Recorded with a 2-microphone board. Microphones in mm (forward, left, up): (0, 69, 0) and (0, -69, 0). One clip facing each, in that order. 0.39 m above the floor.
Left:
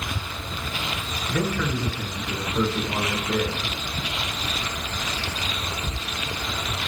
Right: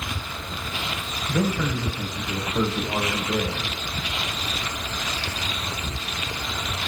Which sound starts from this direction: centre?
A man speaking, at 1.3 s.